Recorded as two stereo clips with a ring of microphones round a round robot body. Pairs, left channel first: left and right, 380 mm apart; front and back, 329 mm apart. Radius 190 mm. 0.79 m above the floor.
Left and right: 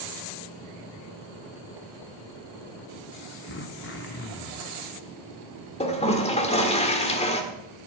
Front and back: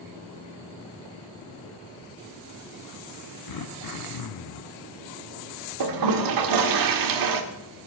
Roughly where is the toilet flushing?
Behind.